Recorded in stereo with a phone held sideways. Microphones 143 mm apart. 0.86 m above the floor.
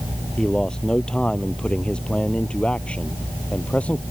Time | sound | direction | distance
0.4 | a man speaking | 5° left (ahead or behind) | ?